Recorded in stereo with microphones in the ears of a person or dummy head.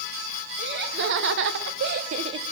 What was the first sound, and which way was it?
Laughter, 70° right (ahead or behind).